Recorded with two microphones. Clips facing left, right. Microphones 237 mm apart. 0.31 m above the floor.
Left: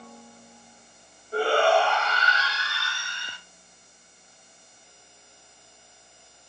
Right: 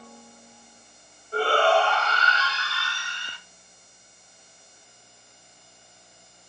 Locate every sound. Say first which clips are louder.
1.3 s a shout: even; 15° left (ahead or behind), 1.8 m